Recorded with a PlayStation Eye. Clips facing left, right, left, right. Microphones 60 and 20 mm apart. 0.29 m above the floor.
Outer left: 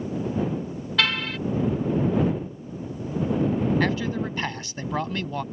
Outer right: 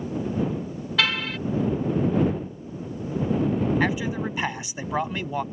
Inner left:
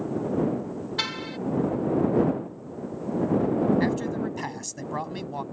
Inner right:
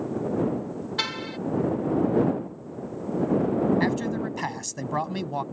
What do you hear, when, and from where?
1.0 s a car horn: centre (ahead or behind)
3.8 s a man speaking: 15° right (ahead or behind)